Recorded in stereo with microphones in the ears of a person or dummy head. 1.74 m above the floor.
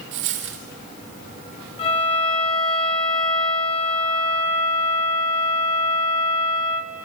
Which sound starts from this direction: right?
A dropped coin, at 0.1 s.